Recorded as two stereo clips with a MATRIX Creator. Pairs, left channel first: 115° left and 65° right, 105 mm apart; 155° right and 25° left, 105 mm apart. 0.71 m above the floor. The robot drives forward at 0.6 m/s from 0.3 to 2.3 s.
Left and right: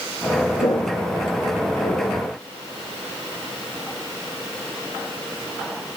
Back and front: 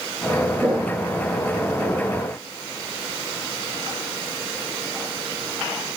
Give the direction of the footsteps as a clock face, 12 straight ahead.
9 o'clock.